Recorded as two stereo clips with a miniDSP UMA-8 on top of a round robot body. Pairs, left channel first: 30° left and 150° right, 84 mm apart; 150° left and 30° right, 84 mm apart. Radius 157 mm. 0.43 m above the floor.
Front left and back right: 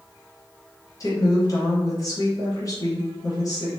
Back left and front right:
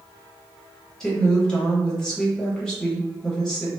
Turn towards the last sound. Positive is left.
turn(degrees=70)